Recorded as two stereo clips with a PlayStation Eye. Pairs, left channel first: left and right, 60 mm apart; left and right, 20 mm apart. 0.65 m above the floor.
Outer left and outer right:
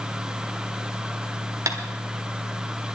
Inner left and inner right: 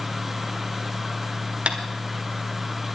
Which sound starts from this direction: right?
Tapping, at 1.7 s.